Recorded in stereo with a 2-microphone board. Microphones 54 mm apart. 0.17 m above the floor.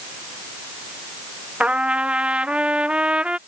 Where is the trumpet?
25° right (ahead or behind).